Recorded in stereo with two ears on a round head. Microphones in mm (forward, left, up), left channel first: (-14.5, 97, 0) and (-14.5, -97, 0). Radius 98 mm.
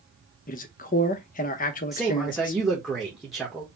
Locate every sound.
0.5 s a man speaking: 40° left (ahead or behind), 0.8 m
1.9 s a man speaking: centre (ahead or behind), 1.0 m